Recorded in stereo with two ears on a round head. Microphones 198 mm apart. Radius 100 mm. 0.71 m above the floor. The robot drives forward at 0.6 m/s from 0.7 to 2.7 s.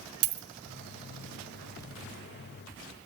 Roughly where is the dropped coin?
Right.